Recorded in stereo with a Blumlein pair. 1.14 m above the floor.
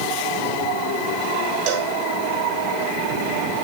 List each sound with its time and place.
1.7 s a cowbell: 40° right, 3 m